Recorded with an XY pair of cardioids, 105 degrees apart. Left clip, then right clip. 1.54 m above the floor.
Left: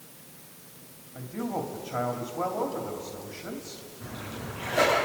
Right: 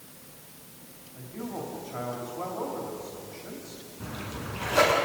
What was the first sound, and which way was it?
A man speaking, 40° left.